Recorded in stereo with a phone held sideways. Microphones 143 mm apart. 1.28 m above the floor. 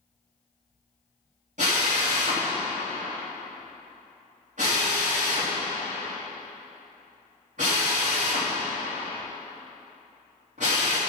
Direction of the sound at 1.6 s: 60° right (ahead or behind).